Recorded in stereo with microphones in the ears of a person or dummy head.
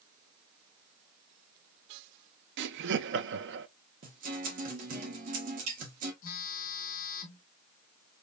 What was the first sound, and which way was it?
Laughter, 80° right.